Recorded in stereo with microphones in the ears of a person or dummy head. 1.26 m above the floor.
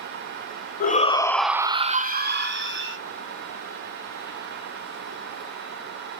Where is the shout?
35° left (ahead or behind), 0.6 m; by 3.0 s 70° right (ahead or behind), 1.2 m.